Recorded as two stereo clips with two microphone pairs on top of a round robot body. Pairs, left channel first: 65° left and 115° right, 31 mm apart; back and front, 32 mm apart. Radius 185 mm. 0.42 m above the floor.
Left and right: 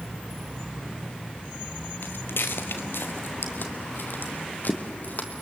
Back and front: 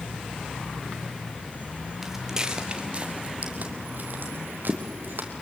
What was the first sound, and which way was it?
Footsteps, 80° left.